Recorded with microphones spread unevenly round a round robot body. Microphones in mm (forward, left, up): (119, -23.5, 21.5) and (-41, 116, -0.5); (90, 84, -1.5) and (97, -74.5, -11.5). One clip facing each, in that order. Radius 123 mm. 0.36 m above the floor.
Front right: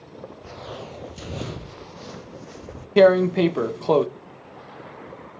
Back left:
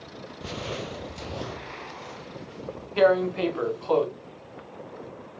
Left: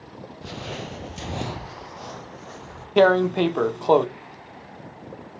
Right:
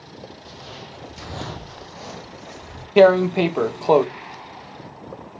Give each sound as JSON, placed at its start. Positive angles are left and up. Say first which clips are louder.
{"t": 0.4, "sound": "footsteps", "louder": "back left 7 dB, left 5 dB", "azimuth_deg": 95, "distance_m": 0.6}
{"t": 3.0, "sound": "tearing paper", "louder": "front right 6 dB, right 4 dB", "azimuth_deg": -5, "distance_m": 0.8}